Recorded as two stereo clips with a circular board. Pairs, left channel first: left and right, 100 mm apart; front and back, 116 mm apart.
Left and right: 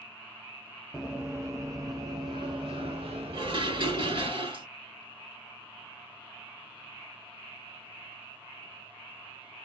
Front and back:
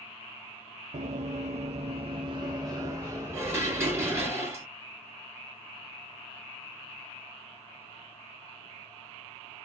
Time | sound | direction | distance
0.9 | running footsteps | 175° right | 0.8 m
3.3 | dishes clattering | 115° right | 1.8 m